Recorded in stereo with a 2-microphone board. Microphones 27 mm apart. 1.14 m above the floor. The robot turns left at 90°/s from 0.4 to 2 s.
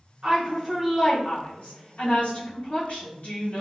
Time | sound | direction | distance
0.2 | a woman speaking | 130° right | 1.0 m